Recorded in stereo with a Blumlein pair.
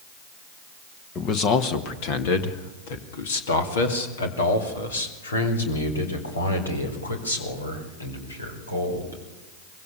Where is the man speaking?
30° left, 1.4 m; by 9.2 s 80° left, 5.5 m.